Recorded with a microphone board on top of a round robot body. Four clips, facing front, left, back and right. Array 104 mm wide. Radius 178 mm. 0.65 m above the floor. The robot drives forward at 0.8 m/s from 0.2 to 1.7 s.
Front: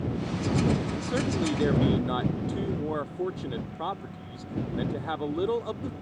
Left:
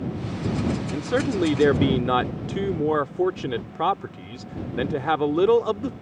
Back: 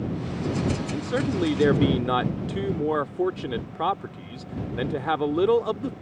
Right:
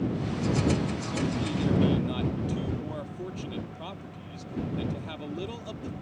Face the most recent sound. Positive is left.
turn(degrees=115)